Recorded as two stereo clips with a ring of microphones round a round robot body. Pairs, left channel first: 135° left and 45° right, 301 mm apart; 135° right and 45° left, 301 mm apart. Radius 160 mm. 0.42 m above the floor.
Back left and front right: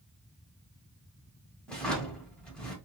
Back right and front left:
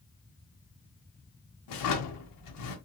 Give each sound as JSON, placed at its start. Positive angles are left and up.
{"t": 1.7, "sound": "a drawer", "azimuth_deg": -140, "distance_m": 1.1}